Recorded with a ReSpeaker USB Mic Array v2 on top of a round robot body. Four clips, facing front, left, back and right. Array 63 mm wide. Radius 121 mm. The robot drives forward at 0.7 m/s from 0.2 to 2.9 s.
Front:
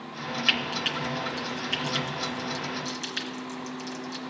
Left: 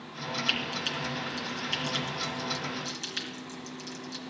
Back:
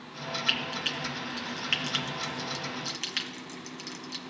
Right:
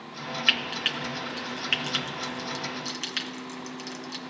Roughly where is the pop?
No pop in this recording.